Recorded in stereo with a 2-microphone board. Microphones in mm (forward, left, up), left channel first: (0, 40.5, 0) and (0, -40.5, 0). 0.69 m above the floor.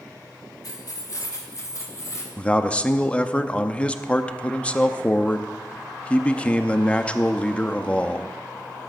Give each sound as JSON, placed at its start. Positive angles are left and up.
{"t": 0.6, "sound": "keys jangling", "side_deg": 55, "distance_m": 2.0}
{"t": 2.4, "sound": "a man speaking", "side_deg": 15, "distance_m": 0.7}